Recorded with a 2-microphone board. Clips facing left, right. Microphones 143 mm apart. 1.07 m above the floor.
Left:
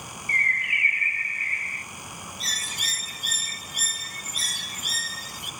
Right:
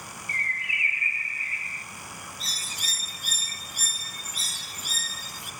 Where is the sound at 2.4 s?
65° left (ahead or behind), 0.9 m.